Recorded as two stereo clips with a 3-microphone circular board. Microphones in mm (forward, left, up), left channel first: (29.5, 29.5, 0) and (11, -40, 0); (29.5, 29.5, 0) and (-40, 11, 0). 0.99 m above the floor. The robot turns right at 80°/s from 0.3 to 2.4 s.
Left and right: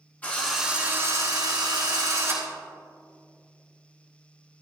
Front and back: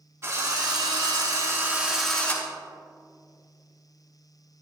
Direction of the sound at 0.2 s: 140° left.